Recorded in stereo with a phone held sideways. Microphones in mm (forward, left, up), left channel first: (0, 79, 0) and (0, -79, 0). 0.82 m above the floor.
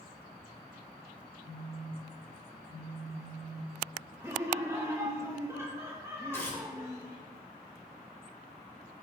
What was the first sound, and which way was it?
A phone buzzing, 40° right (ahead or behind).